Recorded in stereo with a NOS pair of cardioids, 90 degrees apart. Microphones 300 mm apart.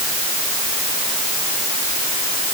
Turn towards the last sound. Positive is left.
No sound to turn to.